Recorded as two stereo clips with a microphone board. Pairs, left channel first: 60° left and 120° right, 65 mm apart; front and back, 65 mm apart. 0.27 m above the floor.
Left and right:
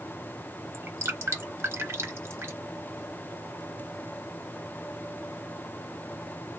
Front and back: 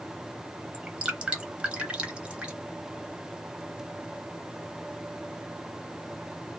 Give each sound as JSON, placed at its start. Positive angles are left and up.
{"t": 0.7, "sound": "dripping", "azimuth_deg": -120, "distance_m": 0.8}